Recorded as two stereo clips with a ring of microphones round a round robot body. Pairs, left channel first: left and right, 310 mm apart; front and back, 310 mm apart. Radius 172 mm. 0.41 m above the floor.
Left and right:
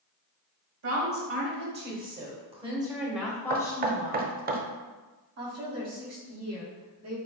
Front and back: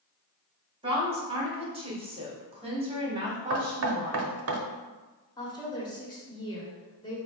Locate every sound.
0.8 s a woman speaking: 110° right, 1.9 m; by 4.3 s 115° left, 1.4 m
3.5 s knocking: 145° right, 0.8 m
5.4 s a woman speaking: 75° right, 1.7 m